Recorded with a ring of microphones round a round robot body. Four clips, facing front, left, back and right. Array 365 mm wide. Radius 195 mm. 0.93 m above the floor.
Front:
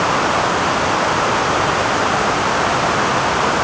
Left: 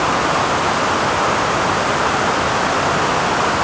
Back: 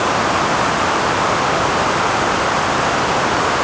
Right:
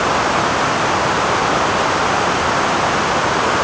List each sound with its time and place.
Only background noise.